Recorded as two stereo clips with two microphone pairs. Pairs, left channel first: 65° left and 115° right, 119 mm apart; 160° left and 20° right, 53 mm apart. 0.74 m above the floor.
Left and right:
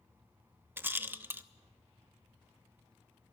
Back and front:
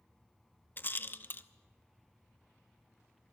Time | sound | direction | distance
0.8 | a rattle | straight behind | 0.7 m